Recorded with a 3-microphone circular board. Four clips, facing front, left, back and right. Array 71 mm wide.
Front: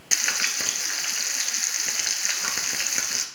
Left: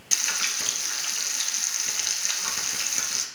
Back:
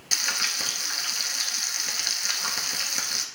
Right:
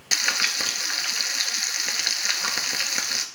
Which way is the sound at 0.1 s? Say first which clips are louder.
Right 6 dB, front 2 dB; 65° right.